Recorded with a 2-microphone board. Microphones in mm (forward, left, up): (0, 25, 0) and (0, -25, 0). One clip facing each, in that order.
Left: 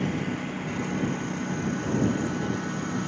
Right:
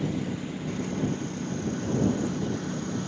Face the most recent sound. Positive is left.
turn(degrees=50)  # may be behind; listen again after turning